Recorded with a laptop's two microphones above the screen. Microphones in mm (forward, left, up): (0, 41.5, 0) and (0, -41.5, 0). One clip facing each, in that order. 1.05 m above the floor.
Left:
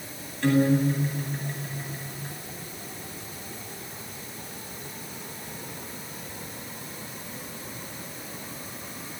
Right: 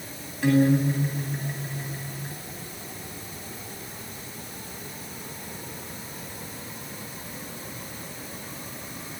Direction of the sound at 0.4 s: 10° right (ahead or behind).